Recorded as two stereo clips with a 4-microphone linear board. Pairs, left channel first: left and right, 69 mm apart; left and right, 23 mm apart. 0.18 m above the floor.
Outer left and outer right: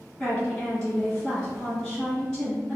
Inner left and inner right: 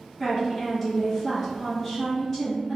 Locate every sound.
0.2 s a woman speaking: 5° left (ahead or behind), 1.8 m